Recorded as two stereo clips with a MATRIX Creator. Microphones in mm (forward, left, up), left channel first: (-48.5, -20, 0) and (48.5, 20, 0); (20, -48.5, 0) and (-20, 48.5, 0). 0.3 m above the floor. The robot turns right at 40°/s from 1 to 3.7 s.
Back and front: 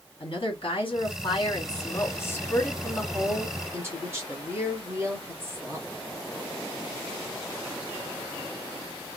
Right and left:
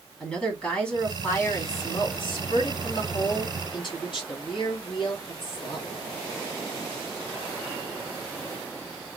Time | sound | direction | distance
0.2 | a woman speaking | 145° right | 2 m